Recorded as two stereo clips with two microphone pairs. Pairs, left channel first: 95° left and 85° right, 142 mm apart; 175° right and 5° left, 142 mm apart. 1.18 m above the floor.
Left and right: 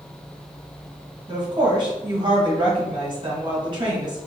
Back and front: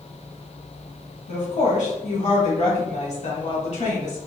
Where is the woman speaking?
140° right, 1.1 m.